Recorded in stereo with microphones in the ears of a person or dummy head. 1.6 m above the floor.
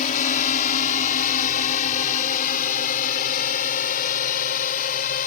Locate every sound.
0.0 s a drone: 45° left (ahead or behind); by 5.3 s 50° left (ahead or behind)